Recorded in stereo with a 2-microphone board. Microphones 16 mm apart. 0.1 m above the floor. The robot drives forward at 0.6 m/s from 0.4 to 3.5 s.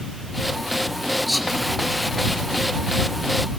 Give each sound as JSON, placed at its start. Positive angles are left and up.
{"t": 1.3, "sound": "whispering", "side_deg": -10, "distance_m": 1.9}